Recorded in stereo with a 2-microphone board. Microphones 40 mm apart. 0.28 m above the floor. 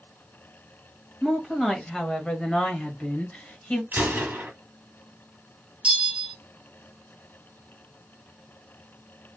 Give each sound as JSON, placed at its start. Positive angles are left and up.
{"t": 1.2, "sound": "a woman speaking", "side_deg": 5, "distance_m": 1.3}
{"t": 3.9, "sound": "a gunshot", "side_deg": -55, "distance_m": 1.2}
{"t": 5.8, "sound": "a bell", "side_deg": -30, "distance_m": 0.9}